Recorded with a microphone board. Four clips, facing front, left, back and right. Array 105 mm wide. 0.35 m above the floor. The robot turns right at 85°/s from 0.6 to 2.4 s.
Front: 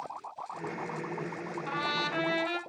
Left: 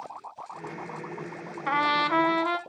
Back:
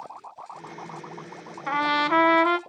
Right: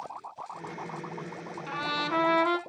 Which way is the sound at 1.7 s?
120° left.